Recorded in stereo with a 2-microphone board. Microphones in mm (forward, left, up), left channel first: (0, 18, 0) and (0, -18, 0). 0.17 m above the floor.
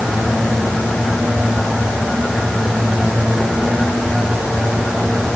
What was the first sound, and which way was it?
Only background noise.